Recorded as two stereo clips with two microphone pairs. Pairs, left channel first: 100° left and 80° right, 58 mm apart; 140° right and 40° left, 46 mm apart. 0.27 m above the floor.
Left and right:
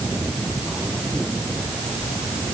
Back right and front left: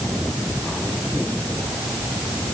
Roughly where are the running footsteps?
No running footsteps in this recording.